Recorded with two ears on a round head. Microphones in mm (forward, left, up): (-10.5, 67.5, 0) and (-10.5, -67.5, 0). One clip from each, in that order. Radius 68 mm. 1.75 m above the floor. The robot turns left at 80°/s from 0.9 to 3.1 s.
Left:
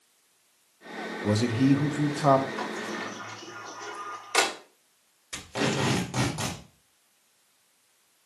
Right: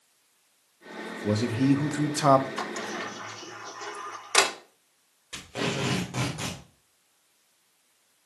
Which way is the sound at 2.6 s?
70° right (ahead or behind).